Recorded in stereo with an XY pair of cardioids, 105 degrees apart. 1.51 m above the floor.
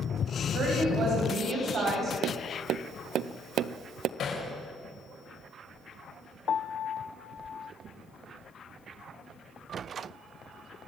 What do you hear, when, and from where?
0.5 s a woman speaking: 65° right, 10 m; by 2.1 s 50° right, 10.5 m
2.2 s tapping: 70° right, 0.7 m
4.2 s hammering: 60° left, 6.5 m
6.5 s a piano: 50° left, 0.8 m